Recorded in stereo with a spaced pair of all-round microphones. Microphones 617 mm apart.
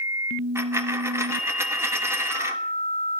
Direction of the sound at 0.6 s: 5° right (ahead or behind).